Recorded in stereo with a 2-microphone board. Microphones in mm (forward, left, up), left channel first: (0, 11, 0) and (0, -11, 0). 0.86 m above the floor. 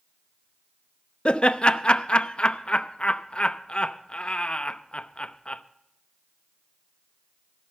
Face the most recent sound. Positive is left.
turn(degrees=50)  # may be behind; listen again after turning